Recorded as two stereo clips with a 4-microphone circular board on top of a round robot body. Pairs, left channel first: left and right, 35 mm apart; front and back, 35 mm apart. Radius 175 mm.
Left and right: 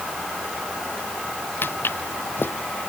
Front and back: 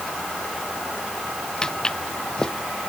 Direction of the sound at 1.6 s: 70° left.